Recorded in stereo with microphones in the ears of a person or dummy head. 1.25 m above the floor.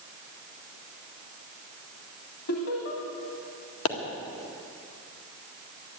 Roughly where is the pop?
Left.